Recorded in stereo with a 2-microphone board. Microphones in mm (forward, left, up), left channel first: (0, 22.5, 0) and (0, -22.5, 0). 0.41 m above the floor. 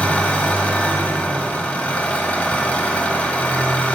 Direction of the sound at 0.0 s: 35° left (ahead or behind).